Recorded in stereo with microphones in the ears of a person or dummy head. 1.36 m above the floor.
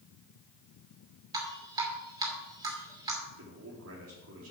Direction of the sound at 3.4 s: 80° right.